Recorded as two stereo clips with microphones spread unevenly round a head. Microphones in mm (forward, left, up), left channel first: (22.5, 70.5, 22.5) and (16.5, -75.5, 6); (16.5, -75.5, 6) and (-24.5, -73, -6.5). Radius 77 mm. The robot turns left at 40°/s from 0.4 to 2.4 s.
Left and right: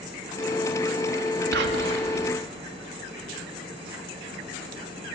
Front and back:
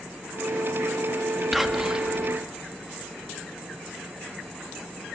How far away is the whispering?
About 2 m.